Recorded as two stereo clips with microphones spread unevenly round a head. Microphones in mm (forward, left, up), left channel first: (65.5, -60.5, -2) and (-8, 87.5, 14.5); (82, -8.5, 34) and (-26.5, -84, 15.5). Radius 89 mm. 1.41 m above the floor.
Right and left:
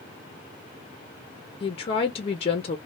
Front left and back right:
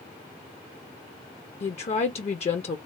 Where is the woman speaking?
5° right, 0.5 m.